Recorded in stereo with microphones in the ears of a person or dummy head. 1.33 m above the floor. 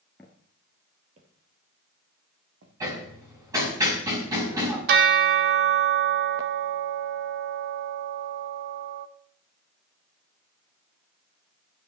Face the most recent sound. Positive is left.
turn(degrees=-40)  # may be behind; listen again after turning